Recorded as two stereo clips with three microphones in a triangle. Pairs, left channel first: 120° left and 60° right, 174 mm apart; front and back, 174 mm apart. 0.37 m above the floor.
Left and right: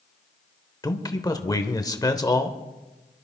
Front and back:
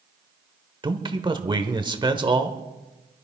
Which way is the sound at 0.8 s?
160° left.